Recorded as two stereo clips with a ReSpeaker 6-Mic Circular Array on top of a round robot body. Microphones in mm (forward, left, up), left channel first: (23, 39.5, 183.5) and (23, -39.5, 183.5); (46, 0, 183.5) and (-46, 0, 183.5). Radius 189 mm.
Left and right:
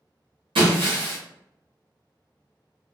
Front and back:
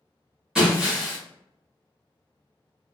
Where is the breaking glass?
95° right, 0.9 m.